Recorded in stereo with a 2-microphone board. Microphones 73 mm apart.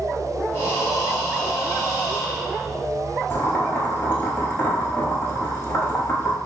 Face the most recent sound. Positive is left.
turn(degrees=25)  # may be behind; listen again after turning